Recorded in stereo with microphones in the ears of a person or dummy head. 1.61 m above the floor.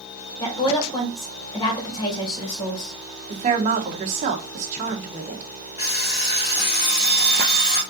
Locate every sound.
0.4 s a woman speaking: 20° left (ahead or behind), 1.5 m
3.3 s a woman speaking: 40° right (ahead or behind), 1.1 m
5.8 s an alarm clock: 30° left (ahead or behind), 1.7 m